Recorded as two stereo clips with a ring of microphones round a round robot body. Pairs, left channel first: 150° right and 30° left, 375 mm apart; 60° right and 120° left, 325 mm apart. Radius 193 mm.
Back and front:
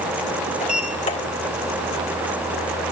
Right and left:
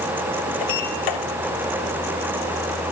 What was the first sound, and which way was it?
A sliding door, 80° right.